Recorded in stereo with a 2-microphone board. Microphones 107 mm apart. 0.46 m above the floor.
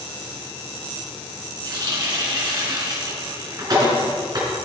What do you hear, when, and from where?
1.6 s a running tap: 40° right (ahead or behind), 3.5 m